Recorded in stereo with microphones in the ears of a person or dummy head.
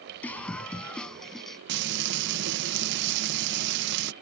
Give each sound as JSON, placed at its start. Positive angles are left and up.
{"t": 0.2, "sound": "a scream", "side_deg": 5}
{"t": 1.7, "sound": "frying", "side_deg": -65}